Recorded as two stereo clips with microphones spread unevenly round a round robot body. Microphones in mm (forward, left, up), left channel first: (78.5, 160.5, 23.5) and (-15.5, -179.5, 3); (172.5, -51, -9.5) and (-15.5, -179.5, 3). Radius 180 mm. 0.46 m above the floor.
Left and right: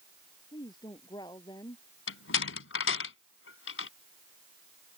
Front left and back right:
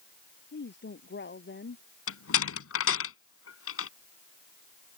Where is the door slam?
20° left.